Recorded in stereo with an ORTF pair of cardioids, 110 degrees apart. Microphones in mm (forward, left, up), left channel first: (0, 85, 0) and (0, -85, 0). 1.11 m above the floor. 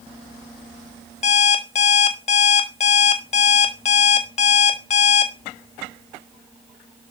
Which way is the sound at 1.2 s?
45° left.